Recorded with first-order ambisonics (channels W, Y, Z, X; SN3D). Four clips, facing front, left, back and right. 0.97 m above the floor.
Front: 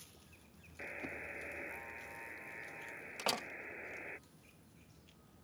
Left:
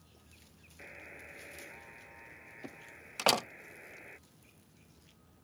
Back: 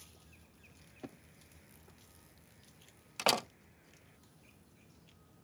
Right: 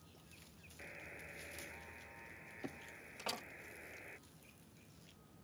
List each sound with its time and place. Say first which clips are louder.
0.8 s a buzzer: left 3 dB, front 9 dB; 10° left
3.2 s a door slam: left 16 dB, back 7 dB; 115° left